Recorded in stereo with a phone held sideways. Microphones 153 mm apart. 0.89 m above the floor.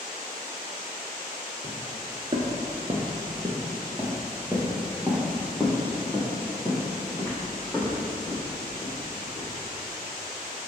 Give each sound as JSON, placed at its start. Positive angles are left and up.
{"t": 1.6, "sound": "footsteps", "side_deg": -40, "distance_m": 1.0}